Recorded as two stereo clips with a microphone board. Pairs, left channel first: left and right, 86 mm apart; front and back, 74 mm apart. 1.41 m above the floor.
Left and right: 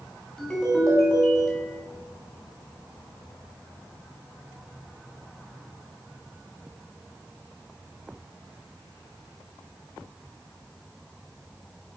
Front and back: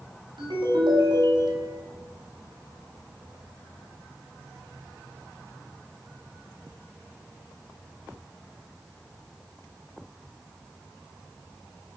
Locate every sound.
0.4 s a ringtone: 170° left, 1.9 m